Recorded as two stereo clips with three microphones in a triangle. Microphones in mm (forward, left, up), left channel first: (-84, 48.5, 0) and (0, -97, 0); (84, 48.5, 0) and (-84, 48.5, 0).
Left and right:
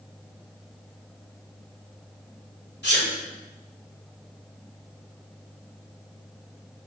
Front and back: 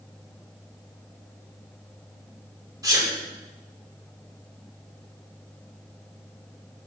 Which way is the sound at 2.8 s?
110° left.